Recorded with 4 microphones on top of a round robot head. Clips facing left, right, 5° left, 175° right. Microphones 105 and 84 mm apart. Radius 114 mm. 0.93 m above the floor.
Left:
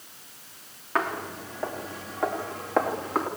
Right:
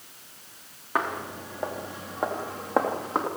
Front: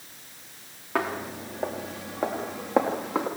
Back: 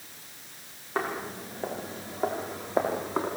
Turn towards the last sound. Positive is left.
turn(degrees=-25)